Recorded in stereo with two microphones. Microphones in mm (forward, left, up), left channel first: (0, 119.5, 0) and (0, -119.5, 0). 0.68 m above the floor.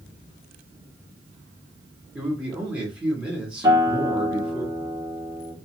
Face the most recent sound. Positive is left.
turn(degrees=-15)  # may be behind; listen again after turning